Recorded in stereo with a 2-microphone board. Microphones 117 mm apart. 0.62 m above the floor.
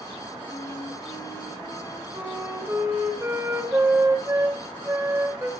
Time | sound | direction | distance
0.5 | a flute | 25° right (ahead or behind) | 2.5 m